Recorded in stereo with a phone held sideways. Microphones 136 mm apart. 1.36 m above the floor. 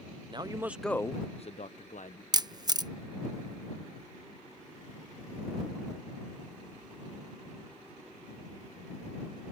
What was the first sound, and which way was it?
A man speaking, 35° right (ahead or behind).